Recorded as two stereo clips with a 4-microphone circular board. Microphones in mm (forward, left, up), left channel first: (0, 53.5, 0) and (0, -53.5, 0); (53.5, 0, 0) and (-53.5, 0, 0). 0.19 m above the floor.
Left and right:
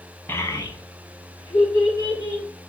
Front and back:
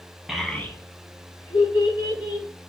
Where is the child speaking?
100° left, 0.6 m; by 2.5 s 45° left, 2.5 m.